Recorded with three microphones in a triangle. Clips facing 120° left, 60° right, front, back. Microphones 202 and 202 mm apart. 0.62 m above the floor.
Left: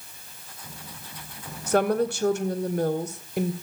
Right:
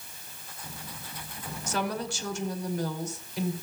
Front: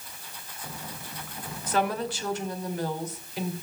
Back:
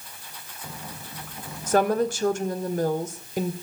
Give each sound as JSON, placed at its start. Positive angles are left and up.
{"t": 1.7, "sound": "a woman speaking", "azimuth_deg": 140, "distance_m": 2.5}